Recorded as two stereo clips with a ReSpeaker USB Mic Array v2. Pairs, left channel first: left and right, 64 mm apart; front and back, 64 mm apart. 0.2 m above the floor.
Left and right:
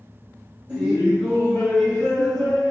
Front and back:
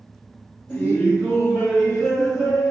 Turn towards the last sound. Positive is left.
turn(degrees=100)